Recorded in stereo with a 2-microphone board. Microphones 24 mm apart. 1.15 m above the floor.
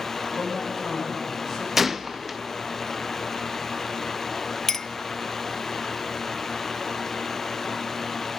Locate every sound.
0.4 s a man speaking: centre (ahead or behind), 5.5 m
1.8 s a gunshot: 10° right (ahead or behind), 0.6 m
4.7 s a clink: 20° left (ahead or behind), 0.5 m